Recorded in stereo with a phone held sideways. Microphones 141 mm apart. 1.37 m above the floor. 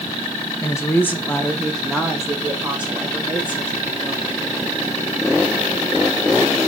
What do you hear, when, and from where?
0.6 s a woman speaking: 25° left (ahead or behind), 1.3 m; by 4.3 s 15° right (ahead or behind), 3 m